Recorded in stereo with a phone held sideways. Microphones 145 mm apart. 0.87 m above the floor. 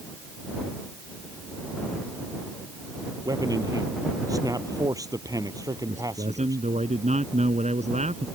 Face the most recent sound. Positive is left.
turn(degrees=-50)  # may be behind; listen again after turning